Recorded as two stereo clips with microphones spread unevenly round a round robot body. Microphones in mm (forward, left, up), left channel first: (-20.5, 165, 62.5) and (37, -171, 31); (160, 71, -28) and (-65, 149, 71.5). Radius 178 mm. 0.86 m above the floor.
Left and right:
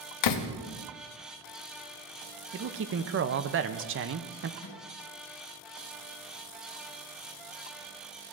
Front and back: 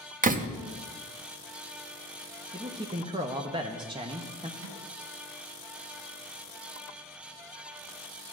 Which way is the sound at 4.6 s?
145° left.